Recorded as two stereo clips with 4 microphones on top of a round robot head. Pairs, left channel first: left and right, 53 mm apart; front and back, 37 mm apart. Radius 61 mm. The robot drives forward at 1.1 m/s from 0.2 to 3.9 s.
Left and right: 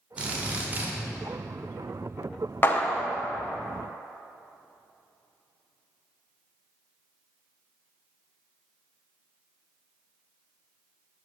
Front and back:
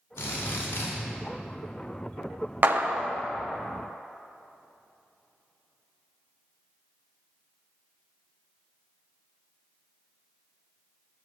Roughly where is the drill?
Ahead.